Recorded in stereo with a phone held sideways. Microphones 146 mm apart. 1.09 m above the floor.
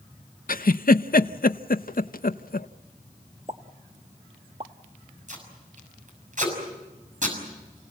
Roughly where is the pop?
Right.